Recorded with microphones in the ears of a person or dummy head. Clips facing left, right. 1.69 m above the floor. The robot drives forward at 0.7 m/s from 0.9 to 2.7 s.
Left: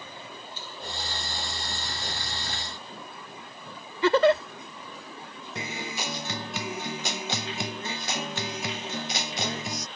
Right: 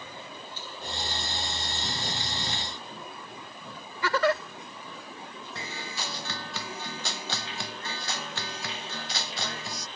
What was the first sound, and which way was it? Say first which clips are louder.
A giggle: left 6 dB; 25° left (ahead or behind).